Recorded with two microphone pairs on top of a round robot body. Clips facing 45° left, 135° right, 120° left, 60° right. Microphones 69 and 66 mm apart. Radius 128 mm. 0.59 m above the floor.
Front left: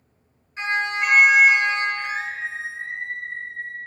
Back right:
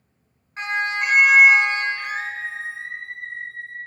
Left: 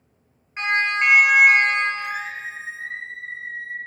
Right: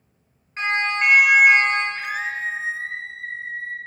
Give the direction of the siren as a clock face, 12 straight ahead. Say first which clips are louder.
Even, left 1 dB; 6 o'clock.